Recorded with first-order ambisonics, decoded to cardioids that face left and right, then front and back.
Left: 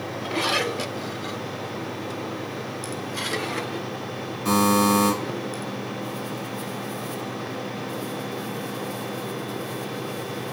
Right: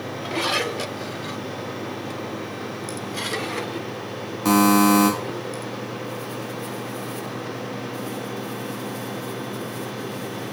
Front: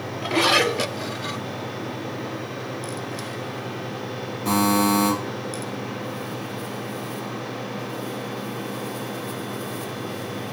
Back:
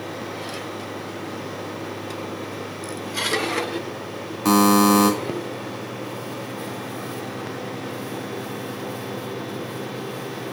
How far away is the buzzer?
About 1.0 m.